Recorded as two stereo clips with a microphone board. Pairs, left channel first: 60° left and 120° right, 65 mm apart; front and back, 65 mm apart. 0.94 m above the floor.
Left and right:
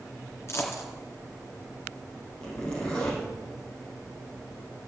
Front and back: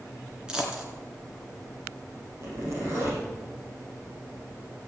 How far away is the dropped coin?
About 2.5 m.